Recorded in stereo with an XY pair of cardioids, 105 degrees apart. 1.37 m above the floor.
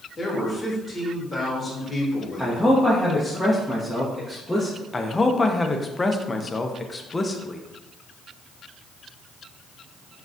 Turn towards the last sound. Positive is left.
turn(degrees=20)